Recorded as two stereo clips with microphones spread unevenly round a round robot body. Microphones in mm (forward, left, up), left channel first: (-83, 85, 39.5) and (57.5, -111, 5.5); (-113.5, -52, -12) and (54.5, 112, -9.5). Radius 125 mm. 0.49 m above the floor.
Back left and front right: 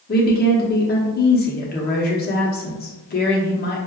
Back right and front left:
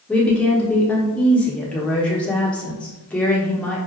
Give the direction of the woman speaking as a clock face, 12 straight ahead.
7 o'clock.